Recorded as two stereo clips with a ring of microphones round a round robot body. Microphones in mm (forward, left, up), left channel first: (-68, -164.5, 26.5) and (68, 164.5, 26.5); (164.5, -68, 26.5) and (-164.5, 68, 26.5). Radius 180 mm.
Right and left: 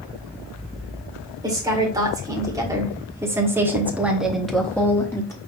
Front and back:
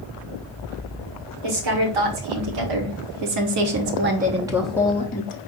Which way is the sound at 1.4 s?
145° left.